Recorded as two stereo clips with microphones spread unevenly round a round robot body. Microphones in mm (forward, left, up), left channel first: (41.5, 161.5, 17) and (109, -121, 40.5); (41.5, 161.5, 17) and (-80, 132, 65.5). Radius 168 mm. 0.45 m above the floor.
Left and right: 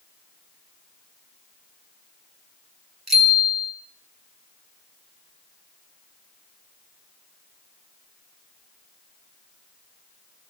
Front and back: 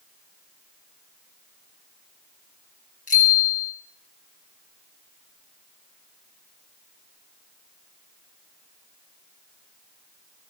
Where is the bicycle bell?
15° left, 6 m.